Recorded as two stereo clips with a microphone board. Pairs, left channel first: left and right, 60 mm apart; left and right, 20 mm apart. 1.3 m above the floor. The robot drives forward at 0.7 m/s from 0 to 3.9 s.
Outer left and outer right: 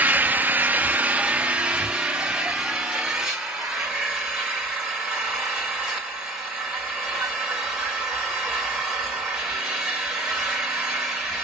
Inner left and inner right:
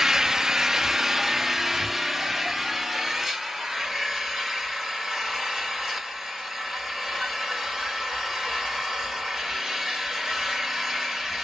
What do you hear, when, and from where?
0.0 s an engine running: 25° right (ahead or behind), 0.7 m; by 11.4 s 5° right (ahead or behind), 2.5 m